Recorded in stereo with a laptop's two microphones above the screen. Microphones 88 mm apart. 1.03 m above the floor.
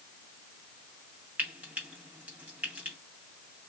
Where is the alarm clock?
No alarm clock in this recording.